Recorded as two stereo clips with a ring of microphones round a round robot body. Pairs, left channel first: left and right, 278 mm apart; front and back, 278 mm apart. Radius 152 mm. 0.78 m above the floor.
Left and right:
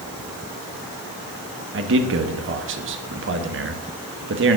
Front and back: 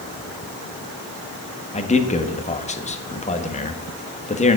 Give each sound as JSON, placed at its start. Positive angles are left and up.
{"t": 1.7, "sound": "a man speaking", "azimuth_deg": -60, "distance_m": 1.3}